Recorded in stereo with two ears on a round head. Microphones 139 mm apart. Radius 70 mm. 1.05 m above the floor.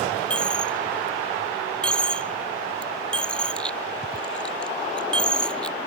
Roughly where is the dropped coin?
Centre.